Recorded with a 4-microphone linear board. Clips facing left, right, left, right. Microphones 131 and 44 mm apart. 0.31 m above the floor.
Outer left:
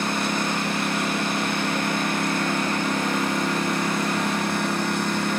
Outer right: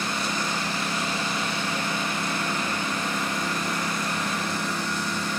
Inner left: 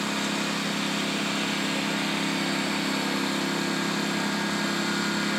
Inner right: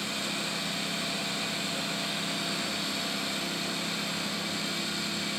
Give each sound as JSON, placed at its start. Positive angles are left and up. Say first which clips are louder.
{"t": 0.0, "sound": "a lawn mower", "louder": "outer left 4 dB, inner left 6 dB", "side_deg": 60}